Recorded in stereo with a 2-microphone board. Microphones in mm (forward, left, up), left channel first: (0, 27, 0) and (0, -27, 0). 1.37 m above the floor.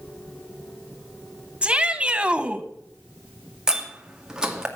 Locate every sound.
1.6 s a shout: 15° right (ahead or behind), 1.3 m
3.7 s a door slam: 10° right (ahead or behind), 2 m